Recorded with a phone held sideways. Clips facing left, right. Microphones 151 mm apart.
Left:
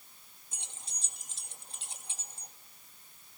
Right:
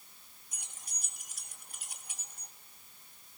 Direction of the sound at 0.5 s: 25° left (ahead or behind).